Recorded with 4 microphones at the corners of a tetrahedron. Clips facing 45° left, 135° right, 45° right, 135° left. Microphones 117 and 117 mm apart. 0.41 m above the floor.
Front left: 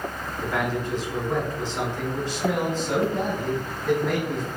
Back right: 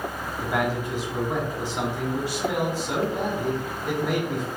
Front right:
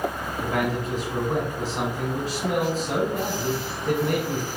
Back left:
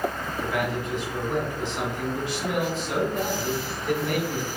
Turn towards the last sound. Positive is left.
turn(degrees=-60)